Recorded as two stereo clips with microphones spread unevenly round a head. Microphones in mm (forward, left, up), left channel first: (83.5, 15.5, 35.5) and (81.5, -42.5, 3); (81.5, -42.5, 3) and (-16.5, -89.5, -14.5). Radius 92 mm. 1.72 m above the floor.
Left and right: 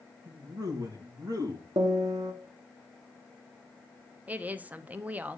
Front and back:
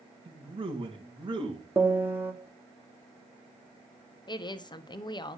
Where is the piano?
90° right, 1.2 m.